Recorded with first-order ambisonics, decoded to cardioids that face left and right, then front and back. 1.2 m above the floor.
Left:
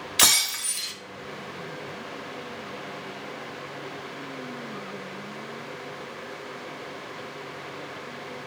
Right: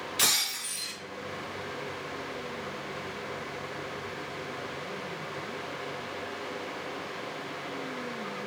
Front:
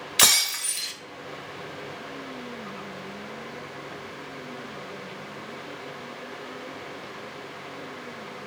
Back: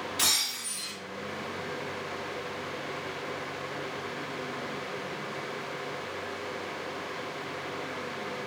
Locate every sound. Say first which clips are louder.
0.2 s breaking glass: left 6 dB, front 8 dB; 35° left, 0.6 m